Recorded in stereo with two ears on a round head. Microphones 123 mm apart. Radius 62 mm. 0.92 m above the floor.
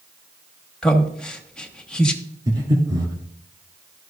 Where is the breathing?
25° right (ahead or behind), 2 m.